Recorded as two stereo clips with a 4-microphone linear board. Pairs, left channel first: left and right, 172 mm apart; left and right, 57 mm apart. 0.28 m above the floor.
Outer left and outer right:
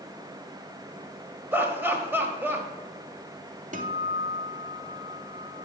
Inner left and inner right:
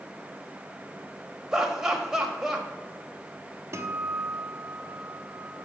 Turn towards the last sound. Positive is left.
turn(degrees=-45)  # may be behind; listen again after turning